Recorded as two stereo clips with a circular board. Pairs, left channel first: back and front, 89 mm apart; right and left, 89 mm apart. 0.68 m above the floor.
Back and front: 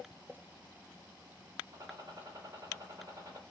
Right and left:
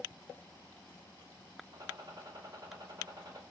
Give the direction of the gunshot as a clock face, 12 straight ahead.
11 o'clock.